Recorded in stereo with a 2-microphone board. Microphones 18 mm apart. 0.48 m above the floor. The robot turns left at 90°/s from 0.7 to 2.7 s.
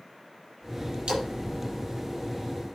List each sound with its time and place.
1.1 s a splash: 70° right (ahead or behind), 6 m; by 1.3 s 50° right (ahead or behind), 6 m